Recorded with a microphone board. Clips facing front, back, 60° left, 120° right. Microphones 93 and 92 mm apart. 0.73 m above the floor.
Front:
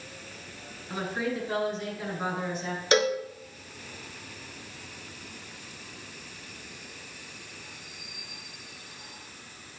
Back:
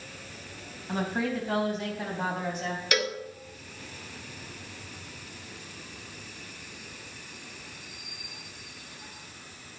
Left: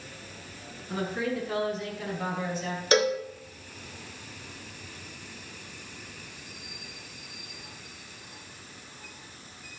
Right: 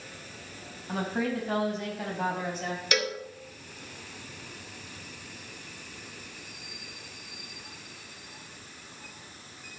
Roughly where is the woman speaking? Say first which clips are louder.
Back 2 dB, even; behind right.